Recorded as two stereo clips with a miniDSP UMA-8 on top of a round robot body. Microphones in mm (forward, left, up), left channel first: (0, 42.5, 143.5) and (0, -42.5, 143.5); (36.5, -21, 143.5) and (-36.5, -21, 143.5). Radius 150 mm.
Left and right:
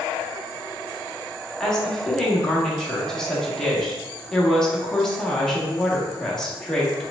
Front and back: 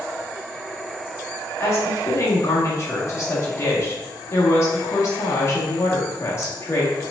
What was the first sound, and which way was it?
A woman speaking, 10° left.